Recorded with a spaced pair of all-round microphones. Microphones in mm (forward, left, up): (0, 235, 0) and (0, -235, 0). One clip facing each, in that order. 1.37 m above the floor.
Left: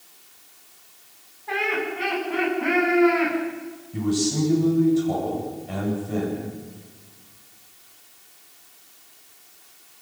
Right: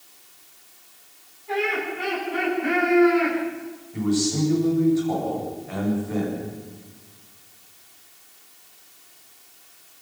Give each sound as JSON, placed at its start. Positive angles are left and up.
{"t": 1.5, "sound": "laughter", "side_deg": 85, "distance_m": 10.0}
{"t": 3.9, "sound": "a man speaking", "side_deg": 50, "distance_m": 9.0}